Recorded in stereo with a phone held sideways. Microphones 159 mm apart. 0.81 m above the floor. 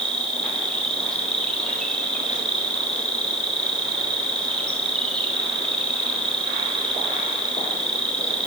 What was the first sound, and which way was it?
An insect, 5° left (ahead or behind).